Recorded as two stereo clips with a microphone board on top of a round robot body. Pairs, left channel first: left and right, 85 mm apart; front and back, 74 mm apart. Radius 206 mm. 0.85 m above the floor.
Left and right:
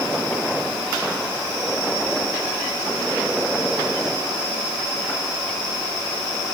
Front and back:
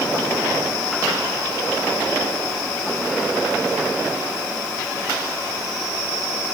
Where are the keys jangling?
No keys jangling in this recording.